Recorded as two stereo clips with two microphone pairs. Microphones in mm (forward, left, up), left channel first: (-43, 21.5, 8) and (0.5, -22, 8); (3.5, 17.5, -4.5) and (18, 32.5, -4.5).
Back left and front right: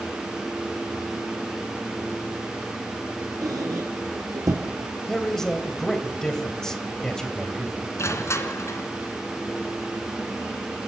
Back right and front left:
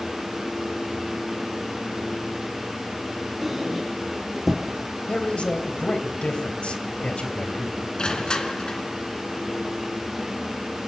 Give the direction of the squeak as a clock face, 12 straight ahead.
1 o'clock.